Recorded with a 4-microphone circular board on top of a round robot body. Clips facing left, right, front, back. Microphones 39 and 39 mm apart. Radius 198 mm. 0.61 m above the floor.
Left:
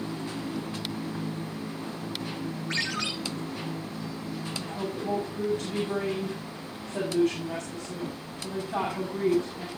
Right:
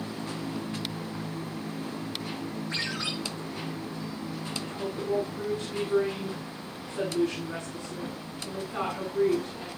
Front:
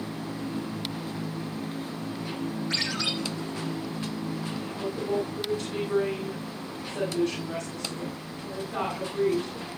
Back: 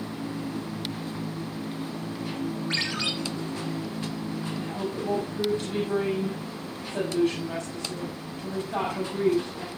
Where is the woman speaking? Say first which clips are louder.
Even, back 1 dB; 135° left, 8.5 m.